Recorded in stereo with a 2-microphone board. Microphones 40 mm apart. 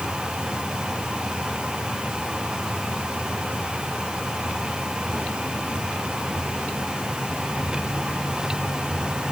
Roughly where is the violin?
No violin in this recording.